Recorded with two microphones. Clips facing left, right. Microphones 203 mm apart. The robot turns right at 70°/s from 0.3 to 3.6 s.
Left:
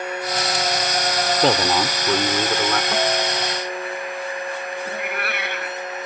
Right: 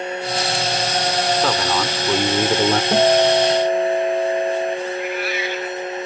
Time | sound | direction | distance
1.4 | a man speaking | 135° left | ?
2.9 | a guitar | 145° right | ?
4.9 | a cat meowing | 60° left (ahead or behind) | ?